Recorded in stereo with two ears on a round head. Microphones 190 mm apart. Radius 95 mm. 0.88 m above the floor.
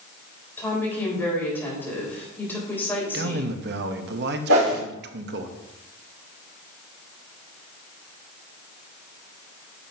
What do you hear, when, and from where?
0.6 s a woman speaking: 10° left (ahead or behind), 3.5 m
3.1 s a man speaking: 50° right (ahead or behind), 0.9 m
4.5 s a whoosh: 75° right (ahead or behind), 3 m